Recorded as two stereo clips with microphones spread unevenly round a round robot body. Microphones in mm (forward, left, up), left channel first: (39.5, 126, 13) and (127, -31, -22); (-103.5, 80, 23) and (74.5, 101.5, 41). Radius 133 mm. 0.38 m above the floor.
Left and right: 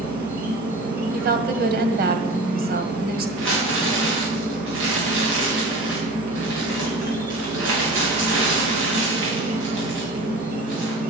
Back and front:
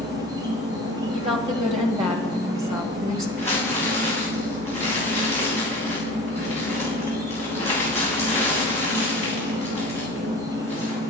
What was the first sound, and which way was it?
An insect, 30° right.